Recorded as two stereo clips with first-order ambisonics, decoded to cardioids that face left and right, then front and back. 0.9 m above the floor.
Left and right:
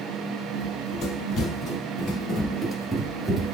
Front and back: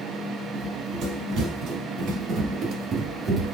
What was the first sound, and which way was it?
Running footsteps, 140° left.